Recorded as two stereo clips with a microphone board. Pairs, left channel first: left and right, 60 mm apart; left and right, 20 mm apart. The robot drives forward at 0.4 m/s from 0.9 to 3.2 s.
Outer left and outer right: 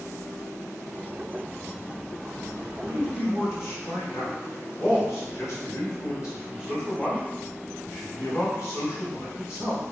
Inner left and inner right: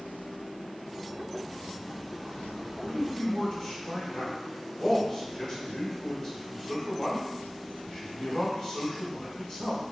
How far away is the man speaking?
About 1.5 m.